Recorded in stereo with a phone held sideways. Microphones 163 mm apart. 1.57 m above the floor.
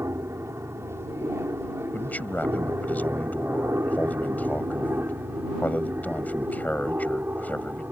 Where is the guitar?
No guitar in this recording.